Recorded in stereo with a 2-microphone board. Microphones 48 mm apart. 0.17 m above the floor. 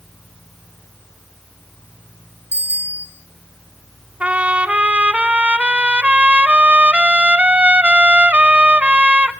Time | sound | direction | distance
2.5 | a bicycle bell | 60° left (ahead or behind) | 2.5 m
4.2 | a trumpet | 25° right (ahead or behind) | 0.9 m